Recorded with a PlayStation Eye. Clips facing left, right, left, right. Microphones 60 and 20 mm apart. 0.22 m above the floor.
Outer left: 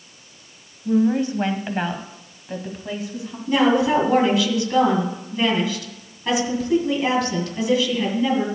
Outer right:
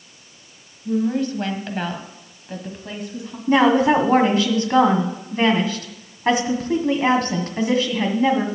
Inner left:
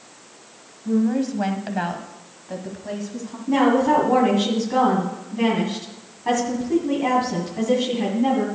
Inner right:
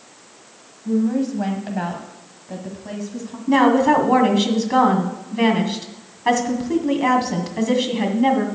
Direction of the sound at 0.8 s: 25° left (ahead or behind).